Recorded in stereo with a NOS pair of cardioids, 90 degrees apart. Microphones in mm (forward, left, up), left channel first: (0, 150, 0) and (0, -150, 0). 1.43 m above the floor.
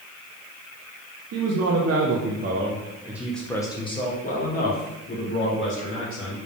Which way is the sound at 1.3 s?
70° right.